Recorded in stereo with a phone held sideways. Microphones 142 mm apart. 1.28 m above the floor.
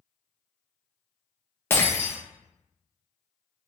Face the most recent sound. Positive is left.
turn(degrees=15)  # may be behind; listen again after turning